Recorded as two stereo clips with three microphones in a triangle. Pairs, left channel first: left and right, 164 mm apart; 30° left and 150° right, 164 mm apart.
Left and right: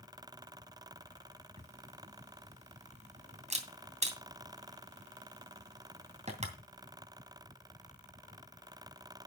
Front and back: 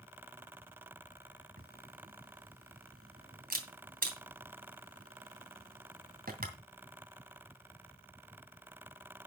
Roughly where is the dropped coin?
No dropped coin in this recording.